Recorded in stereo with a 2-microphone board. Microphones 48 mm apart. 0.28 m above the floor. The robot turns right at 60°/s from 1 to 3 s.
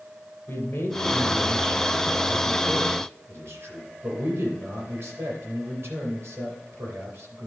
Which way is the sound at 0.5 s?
120° left.